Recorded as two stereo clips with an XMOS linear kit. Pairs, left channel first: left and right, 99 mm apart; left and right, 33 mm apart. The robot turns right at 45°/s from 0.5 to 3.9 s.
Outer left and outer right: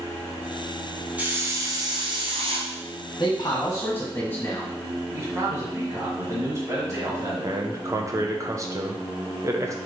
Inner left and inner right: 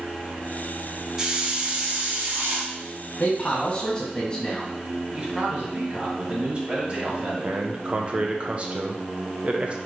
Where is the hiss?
165° right, 0.8 m; by 2.7 s 95° right, 0.8 m.